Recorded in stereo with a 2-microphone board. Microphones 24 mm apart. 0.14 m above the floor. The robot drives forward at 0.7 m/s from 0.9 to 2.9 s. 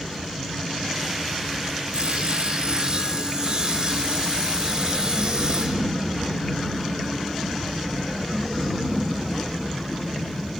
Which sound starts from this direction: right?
Sawing, at 1.9 s.